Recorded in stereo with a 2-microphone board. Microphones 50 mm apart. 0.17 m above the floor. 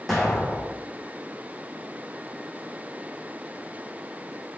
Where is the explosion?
Centre (ahead or behind), 1.9 m.